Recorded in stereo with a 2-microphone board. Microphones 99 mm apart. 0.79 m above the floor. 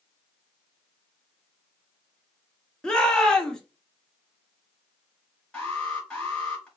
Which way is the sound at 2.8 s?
5° left (ahead or behind).